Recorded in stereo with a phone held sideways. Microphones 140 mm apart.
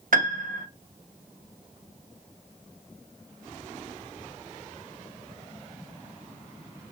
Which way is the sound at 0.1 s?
75° right (ahead or behind).